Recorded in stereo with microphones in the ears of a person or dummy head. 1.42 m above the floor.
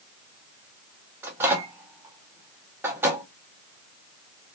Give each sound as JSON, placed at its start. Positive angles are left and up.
{"t": 1.2, "sound": "a microwave", "side_deg": -15, "distance_m": 0.5}